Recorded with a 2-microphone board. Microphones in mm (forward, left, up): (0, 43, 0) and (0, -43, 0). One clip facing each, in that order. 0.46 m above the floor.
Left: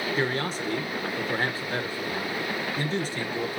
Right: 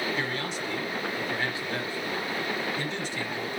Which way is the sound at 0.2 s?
40° left (ahead or behind).